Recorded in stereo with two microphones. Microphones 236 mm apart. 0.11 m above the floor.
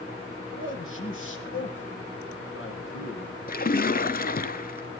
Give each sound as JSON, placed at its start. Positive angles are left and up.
{"t": 0.5, "sound": "a man speaking", "side_deg": 60, "distance_m": 5.0}
{"t": 3.5, "sound": "a splash", "side_deg": 40, "distance_m": 0.6}